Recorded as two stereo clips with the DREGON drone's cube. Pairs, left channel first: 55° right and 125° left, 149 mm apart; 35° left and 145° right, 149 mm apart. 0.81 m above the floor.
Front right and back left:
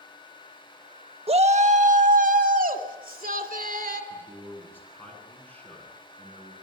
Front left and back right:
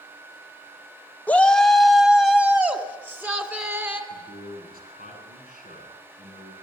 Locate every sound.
1.3 s a shout: 110° left, 1.3 m; by 4.0 s 140° left, 3.5 m
4.1 s a man speaking: 135° right, 9 m